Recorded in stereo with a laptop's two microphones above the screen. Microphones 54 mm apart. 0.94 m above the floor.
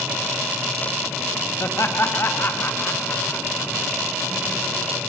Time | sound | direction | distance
1.6 | laughter | 50° left (ahead or behind) | 1.6 m